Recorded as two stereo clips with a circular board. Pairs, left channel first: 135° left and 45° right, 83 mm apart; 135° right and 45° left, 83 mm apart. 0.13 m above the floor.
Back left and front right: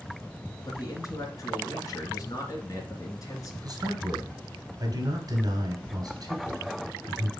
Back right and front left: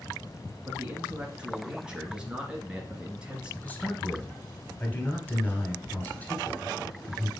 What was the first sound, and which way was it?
A man speaking, 120° left.